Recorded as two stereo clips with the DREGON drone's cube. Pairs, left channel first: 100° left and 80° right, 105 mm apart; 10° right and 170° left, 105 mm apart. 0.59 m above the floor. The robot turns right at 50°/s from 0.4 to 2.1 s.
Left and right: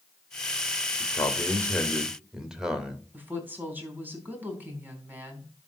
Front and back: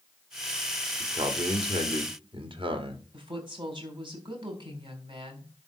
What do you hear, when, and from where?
1.0 s a man speaking: 140° left, 2 m; by 3.0 s 165° right, 2 m
3.1 s a woman speaking: 150° right, 4 m